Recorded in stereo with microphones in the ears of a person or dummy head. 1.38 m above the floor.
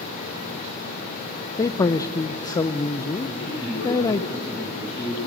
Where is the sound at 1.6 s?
15° left (ahead or behind), 0.6 m.